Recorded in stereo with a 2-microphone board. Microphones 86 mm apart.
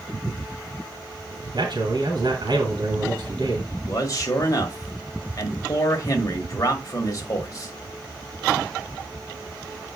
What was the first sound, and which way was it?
A man speaking, 65° right (ahead or behind).